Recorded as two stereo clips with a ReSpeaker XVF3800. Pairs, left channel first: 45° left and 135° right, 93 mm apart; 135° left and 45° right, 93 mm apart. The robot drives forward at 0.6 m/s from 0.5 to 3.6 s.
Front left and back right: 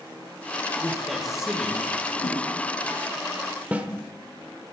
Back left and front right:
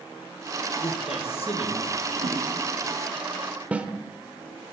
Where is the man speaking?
130° left, 1.4 m; by 1.9 s 145° left, 1.9 m.